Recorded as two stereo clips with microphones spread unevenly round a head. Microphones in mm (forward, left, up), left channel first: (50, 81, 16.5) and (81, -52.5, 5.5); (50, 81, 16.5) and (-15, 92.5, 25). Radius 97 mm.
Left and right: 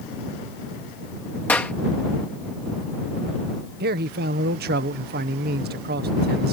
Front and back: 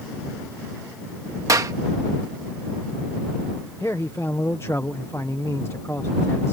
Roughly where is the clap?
Behind.